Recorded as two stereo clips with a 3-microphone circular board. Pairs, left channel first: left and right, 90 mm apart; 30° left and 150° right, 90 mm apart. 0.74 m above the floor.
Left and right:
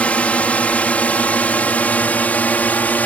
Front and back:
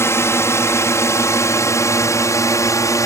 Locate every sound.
0.0 s a drone: 30° left